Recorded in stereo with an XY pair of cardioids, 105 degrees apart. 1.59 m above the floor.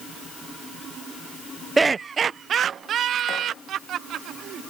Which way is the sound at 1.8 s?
20° right.